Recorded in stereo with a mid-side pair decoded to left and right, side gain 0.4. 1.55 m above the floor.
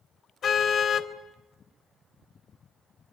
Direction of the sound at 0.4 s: 60° left.